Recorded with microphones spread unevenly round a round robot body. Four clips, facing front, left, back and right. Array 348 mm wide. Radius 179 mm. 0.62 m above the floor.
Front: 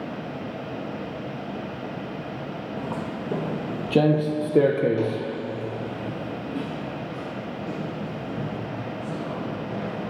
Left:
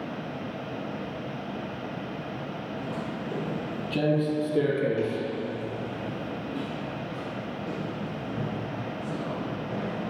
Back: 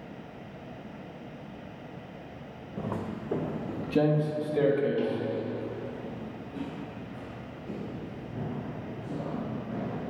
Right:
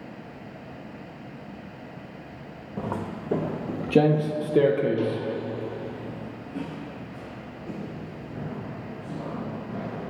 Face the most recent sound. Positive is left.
turn(degrees=50)